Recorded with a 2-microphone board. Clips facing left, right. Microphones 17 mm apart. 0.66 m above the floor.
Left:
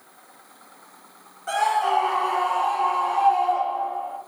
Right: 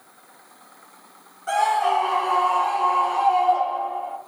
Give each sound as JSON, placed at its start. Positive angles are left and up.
{"t": 1.5, "sound": "a scream", "side_deg": 0, "distance_m": 1.6}